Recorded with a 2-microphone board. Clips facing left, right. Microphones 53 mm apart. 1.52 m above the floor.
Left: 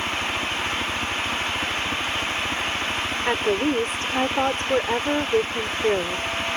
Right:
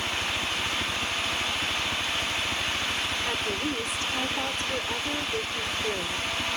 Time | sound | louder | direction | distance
0.0 | a helicopter | left 4 dB | 30° left (ahead or behind) | ?
3.2 | a woman speaking | left 8 dB | 50° left (ahead or behind) | ?